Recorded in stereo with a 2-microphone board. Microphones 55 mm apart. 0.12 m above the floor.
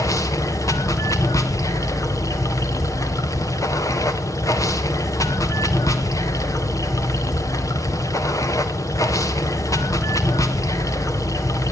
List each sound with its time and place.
0.0 s running water: 90° left, 1.9 m